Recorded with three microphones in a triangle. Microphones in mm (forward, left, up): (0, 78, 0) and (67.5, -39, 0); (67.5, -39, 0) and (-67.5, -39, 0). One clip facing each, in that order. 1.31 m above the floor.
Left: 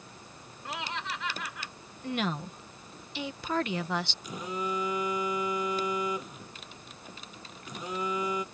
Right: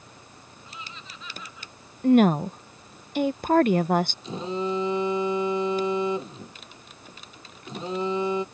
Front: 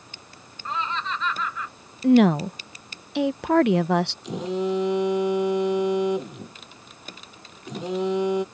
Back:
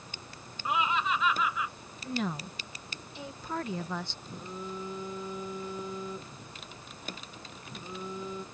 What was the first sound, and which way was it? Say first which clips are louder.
Laughter: left 9 dB, even; 100° left.